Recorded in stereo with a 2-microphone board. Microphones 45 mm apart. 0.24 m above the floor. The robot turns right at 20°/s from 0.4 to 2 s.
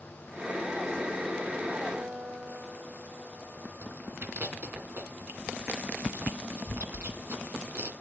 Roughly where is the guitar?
Right.